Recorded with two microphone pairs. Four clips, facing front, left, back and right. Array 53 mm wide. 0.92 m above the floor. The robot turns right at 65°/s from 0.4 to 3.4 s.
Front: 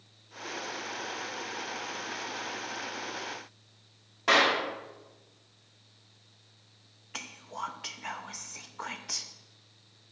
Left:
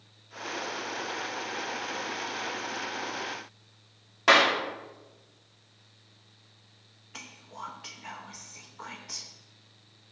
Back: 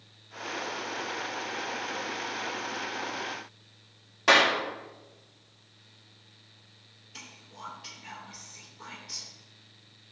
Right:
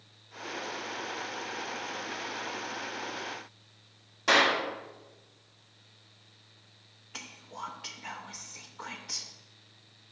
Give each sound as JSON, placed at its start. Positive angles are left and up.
{"t": 4.3, "sound": "a clap", "azimuth_deg": 100, "distance_m": 2.0}
{"t": 7.1, "sound": "whispering", "azimuth_deg": -10, "distance_m": 0.8}